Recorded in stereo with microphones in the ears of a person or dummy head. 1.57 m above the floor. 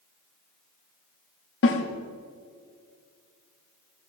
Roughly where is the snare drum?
Left.